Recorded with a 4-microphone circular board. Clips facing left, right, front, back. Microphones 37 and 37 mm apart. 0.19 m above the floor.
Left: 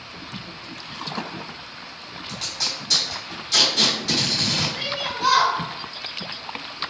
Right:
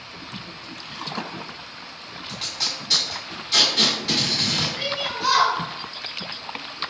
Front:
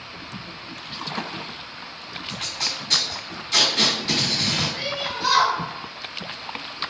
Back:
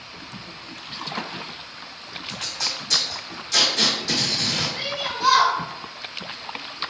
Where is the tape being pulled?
25° right, 1.7 m.